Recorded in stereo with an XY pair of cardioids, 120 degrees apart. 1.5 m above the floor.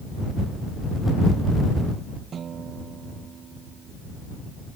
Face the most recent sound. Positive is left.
turn(degrees=-45)